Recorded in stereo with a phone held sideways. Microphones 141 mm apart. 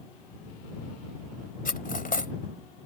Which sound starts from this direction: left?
Cutlery clinking, at 1.6 s.